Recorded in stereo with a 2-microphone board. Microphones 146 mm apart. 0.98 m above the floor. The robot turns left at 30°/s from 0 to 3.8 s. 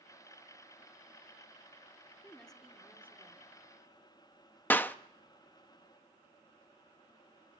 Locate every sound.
2.2 s a woman speaking: 10° left, 2 m; by 3.6 s 30° right, 2 m
4.7 s a clap: 10° left (ahead or behind), 0.6 m